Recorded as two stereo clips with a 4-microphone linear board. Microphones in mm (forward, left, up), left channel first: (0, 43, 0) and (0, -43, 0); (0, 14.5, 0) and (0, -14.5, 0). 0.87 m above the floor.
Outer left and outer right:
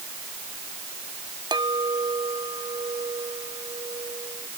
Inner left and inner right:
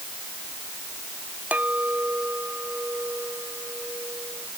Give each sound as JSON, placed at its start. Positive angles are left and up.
{"t": 1.5, "sound": "a clink", "side_deg": -60}